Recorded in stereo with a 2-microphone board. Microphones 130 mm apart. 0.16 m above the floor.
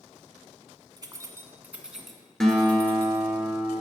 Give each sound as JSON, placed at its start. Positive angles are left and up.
{"t": 1.0, "sound": "keys jangling", "side_deg": -30, "distance_m": 1.1}
{"t": 2.4, "sound": "a guitar", "side_deg": 5, "distance_m": 1.8}